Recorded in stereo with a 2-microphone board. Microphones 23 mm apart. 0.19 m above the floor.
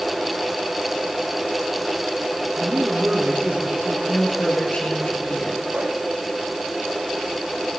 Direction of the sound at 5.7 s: 80° right.